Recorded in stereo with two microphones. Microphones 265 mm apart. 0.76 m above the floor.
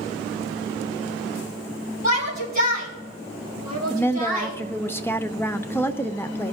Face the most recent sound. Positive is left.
turn(degrees=10)  # may be behind; listen again after turning